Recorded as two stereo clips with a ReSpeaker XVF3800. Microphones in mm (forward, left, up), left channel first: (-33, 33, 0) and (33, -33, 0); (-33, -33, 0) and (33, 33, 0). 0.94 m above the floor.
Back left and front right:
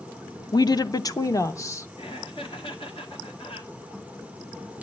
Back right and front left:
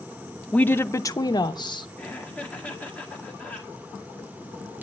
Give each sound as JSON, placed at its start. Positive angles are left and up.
{"t": 0.5, "sound": "a woman speaking", "azimuth_deg": 150, "distance_m": 0.5}
{"t": 2.0, "sound": "laughter", "azimuth_deg": 150, "distance_m": 1.9}